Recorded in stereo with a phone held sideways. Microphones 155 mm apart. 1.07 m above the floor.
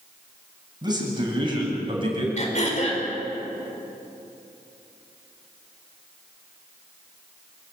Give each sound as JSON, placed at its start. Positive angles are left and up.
{"t": 0.8, "sound": "a man speaking", "side_deg": -30, "distance_m": 8.0}
{"t": 2.4, "sound": "throat clearing", "side_deg": 50, "distance_m": 4.5}